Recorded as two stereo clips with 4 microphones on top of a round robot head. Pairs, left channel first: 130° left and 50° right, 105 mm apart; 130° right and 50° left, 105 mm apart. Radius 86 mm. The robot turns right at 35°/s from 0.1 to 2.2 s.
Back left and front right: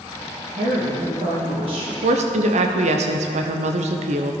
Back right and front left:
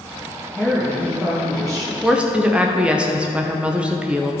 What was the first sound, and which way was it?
A woman speaking, 50° right.